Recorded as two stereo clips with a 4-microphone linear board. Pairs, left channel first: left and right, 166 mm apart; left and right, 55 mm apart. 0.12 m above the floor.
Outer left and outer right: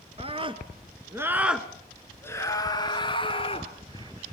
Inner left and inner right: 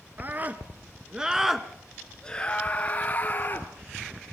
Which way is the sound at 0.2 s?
35° right (ahead or behind).